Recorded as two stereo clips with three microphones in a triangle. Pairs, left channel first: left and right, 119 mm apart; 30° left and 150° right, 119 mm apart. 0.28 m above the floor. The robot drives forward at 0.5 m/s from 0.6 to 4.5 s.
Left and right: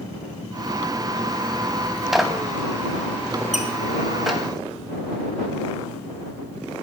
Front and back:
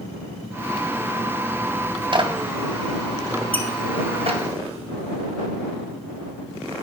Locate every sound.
2.1 s a clap: 175° right, 1.2 m; by 4.4 s straight behind, 2 m
3.5 s a squeak: 105° left, 1.9 m